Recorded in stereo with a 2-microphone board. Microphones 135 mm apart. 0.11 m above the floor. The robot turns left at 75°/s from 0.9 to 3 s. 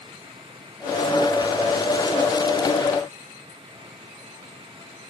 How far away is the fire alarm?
No fire alarm in this recording.